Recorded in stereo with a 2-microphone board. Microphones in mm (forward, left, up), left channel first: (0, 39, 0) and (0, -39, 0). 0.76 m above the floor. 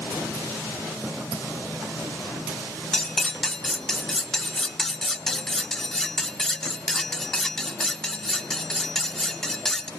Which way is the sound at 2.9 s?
5° left (ahead or behind).